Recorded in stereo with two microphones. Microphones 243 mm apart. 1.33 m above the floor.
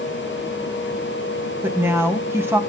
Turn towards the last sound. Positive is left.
turn(degrees=-10)  # may be behind; listen again after turning